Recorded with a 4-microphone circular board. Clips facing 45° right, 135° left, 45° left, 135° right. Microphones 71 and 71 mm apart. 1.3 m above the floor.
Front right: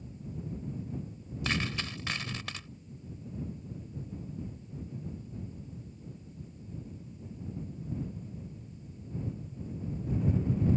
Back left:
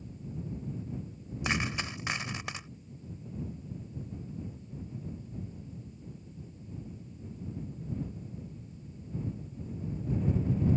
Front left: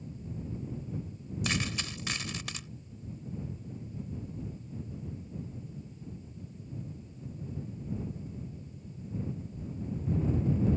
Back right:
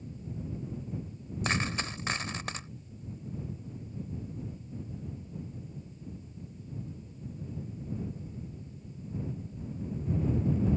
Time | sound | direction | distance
1.4 | a dropped coin | 165° right | ?